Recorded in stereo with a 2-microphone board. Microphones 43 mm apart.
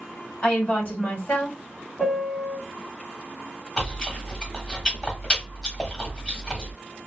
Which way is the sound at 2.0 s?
25° left (ahead or behind).